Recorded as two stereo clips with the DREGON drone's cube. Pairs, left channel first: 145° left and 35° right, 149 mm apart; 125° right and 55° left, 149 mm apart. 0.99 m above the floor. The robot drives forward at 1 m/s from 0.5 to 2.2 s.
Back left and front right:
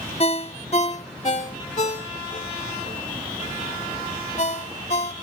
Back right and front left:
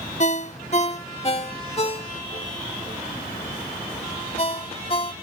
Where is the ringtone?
165° right; by 5.1 s 175° right.